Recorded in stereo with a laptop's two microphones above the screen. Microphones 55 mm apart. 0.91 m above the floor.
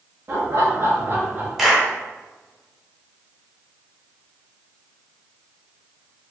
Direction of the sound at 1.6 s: 5° right (ahead or behind).